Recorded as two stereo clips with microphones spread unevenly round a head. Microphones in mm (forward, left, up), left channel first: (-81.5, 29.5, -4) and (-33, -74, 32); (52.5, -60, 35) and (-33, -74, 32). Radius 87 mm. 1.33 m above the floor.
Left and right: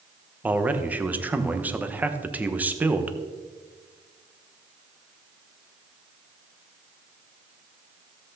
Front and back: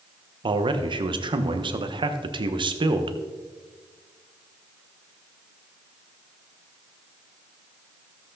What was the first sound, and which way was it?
A man speaking, 145° right.